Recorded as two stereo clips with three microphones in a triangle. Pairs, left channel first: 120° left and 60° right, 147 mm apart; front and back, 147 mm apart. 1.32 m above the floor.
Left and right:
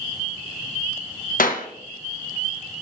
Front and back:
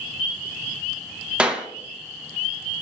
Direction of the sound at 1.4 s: 100° left.